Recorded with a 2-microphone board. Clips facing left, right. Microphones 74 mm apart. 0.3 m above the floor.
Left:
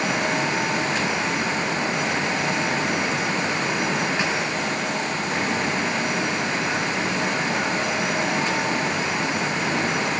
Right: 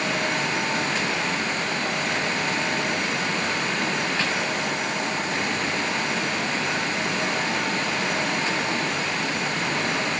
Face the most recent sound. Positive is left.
No sound to turn to.